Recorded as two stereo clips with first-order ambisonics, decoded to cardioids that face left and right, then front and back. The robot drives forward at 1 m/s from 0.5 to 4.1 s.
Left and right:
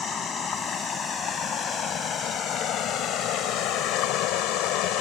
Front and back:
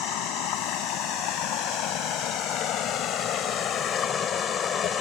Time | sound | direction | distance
0.0 | running water | 30° left | ?